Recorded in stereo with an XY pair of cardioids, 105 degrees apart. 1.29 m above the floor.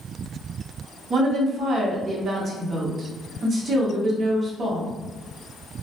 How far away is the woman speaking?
About 1.2 m.